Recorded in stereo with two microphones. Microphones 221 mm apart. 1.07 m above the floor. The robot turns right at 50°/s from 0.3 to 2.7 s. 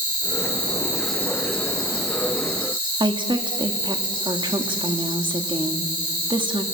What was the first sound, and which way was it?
An insect, 40° right.